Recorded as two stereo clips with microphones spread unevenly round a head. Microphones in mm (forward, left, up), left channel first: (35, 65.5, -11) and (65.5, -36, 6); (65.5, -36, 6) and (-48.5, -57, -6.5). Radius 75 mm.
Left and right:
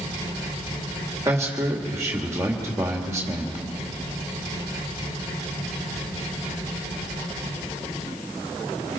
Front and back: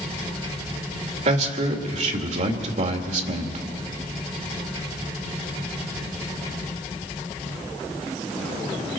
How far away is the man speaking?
About 2.5 m.